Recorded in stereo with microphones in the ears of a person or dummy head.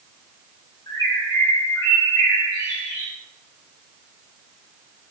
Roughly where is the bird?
Centre.